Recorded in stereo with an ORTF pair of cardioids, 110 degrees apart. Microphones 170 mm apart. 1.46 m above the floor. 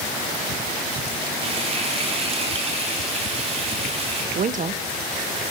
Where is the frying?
35° right, 5 m.